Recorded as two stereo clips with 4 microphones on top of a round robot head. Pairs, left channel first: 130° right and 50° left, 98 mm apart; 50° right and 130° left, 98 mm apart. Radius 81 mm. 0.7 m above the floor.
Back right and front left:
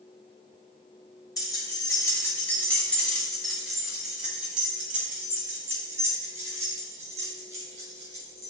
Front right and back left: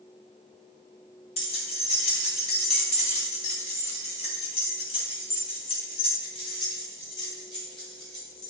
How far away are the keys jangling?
About 2 m.